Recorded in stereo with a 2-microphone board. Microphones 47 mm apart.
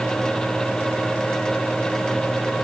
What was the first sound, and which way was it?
Only background noise.